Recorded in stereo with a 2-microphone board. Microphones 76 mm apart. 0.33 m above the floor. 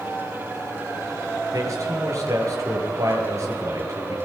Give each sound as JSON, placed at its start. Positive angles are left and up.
{"t": 1.5, "sound": "a man speaking", "side_deg": -40, "distance_m": 7.0}